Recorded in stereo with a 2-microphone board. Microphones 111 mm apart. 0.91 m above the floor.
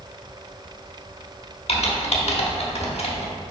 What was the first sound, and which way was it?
Typing on a keyboard, 65° left (ahead or behind).